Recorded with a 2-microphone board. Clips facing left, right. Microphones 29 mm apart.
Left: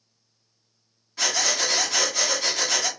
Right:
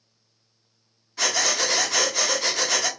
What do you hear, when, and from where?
1.2 s breathing: 5° left (ahead or behind), 1.2 m